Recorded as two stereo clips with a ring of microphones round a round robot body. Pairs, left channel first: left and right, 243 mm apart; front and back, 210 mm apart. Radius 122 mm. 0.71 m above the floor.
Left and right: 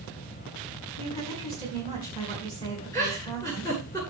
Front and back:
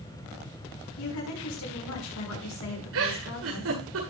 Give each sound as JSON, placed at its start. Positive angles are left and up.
{"t": 1.0, "sound": "a woman speaking", "azimuth_deg": 15, "distance_m": 6.0}
{"t": 2.9, "sound": "a giggle", "azimuth_deg": 165, "distance_m": 9.5}